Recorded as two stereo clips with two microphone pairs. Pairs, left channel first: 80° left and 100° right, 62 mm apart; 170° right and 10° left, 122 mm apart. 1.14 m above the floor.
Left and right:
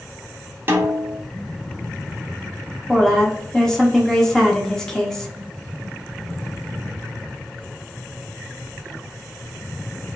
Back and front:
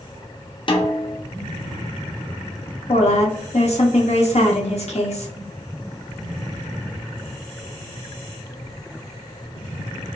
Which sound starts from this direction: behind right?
A snare drum, at 0.7 s.